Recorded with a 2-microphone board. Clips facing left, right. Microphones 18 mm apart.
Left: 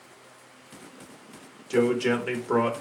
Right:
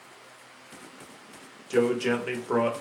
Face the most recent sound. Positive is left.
turn(degrees=0)  # may be behind; listen again after turning